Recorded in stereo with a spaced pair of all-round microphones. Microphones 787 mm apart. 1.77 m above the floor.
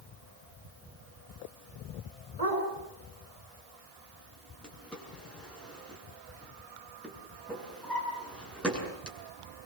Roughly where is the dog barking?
Left.